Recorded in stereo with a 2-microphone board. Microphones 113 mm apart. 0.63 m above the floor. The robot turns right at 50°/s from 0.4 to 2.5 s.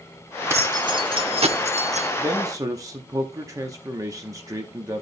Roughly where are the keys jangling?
Behind right.